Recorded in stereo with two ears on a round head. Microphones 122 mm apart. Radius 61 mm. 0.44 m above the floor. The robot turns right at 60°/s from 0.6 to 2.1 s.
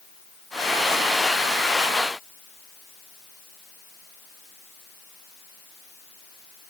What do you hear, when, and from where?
Only background noise.